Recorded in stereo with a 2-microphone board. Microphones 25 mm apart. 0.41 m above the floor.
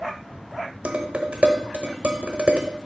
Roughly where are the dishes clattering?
Right.